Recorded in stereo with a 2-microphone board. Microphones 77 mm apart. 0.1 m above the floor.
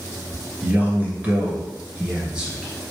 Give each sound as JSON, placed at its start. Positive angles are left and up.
{"t": 0.6, "sound": "a man speaking", "side_deg": -25, "distance_m": 1.2}